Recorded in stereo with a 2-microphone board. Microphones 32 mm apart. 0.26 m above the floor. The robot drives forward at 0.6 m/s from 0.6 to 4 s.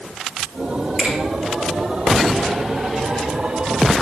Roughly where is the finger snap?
Right.